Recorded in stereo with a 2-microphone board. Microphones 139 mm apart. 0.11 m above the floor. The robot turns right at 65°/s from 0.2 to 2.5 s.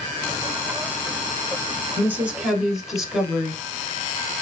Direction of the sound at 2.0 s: 15° right (ahead or behind).